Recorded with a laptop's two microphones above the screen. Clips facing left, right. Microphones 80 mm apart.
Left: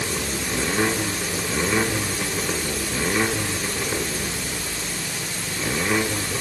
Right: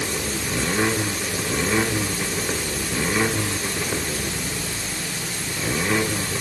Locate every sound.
Only background noise.